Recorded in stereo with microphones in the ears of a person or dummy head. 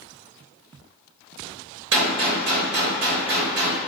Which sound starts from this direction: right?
A gunshot, at 1.9 s.